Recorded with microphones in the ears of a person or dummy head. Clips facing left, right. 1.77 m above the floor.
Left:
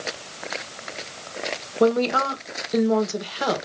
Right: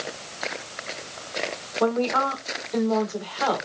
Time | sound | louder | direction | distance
1.8 | a woman speaking | left 3 dB | 40° left (ahead or behind) | 1.1 m